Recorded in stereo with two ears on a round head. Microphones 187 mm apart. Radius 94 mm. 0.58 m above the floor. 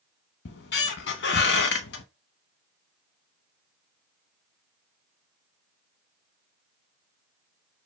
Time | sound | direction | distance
0.5 | a squeak | 55° left (ahead or behind) | 0.7 m